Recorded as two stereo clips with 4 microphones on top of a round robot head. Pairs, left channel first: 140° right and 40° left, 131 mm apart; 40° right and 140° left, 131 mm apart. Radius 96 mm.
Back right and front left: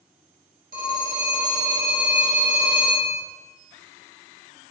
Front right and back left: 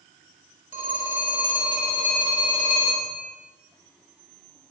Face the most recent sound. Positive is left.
turn(degrees=65)